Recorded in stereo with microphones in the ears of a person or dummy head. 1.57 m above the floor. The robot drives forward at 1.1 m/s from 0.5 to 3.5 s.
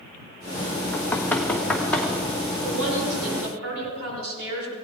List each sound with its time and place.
0.9 s knocking: 10° left (ahead or behind), 1.2 m; by 2.1 s 5° left (ahead or behind), 2.5 m
2.6 s a woman speaking: 70° right (ahead or behind), 6.5 m; by 4.8 s 80° right, 6.5 m